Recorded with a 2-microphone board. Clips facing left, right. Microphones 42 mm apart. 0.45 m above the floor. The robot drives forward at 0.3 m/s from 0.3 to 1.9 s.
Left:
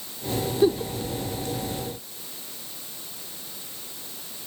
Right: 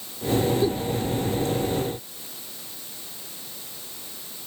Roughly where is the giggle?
Left.